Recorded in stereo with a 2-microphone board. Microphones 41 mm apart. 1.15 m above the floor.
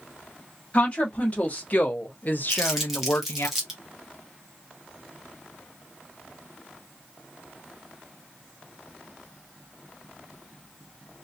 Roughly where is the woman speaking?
Left.